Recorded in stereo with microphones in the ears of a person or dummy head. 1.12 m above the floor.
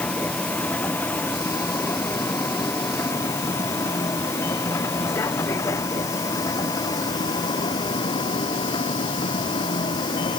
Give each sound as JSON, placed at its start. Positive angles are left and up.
{"t": 0.0, "sound": "a vehicle", "side_deg": 10}